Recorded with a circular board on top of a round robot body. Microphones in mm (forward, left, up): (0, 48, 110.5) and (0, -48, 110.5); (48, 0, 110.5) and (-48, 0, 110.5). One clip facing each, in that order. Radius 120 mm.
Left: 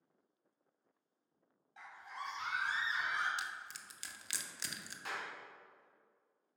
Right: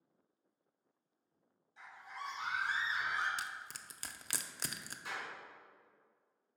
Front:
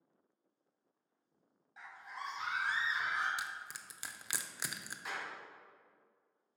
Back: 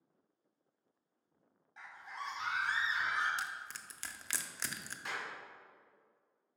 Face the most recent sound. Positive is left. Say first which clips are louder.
# left 1 dB, back 1 dB
turn(degrees=90)